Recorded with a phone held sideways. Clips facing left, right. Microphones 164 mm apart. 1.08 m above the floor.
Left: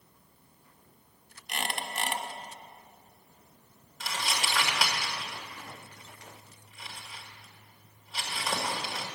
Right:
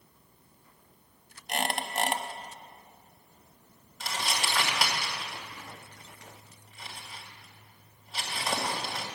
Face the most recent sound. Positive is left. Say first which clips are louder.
# right 1 dB
turn(degrees=5)  # may be behind; listen again after turning